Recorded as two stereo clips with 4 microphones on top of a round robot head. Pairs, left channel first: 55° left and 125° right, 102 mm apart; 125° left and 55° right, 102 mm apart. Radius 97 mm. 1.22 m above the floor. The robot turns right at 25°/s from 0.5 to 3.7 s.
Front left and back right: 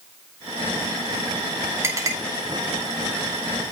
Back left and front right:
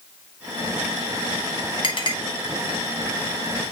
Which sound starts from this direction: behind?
A clink, at 1.8 s.